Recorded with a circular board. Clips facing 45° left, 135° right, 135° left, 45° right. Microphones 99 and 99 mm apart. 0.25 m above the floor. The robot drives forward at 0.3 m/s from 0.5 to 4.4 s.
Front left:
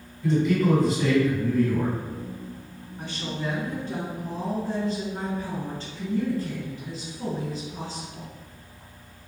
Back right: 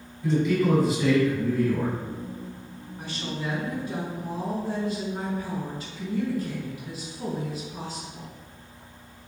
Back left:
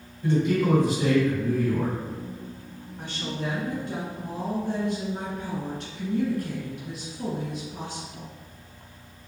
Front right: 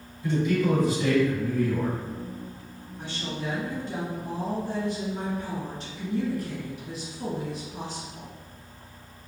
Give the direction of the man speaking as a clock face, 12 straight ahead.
7 o'clock.